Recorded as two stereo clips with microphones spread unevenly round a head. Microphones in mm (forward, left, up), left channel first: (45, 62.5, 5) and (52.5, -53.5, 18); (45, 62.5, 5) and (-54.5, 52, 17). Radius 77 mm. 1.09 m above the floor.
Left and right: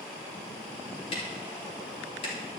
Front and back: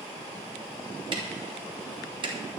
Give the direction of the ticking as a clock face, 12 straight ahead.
7 o'clock.